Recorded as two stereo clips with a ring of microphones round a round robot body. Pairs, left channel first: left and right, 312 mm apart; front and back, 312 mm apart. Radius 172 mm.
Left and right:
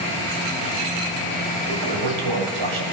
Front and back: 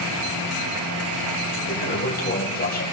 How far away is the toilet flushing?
About 4.5 m.